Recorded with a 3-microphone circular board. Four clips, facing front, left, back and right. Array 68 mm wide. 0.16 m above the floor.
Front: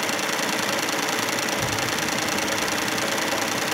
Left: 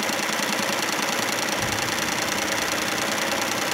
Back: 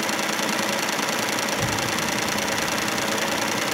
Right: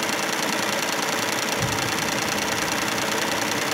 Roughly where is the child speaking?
Right.